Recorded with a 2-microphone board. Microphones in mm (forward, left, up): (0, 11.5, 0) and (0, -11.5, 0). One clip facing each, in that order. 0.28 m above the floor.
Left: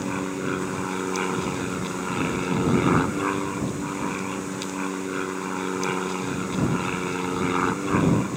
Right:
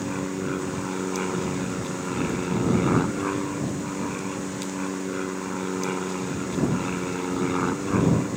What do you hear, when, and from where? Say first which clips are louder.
0.0 s an aircraft: left 1 dB; 20° left (ahead or behind)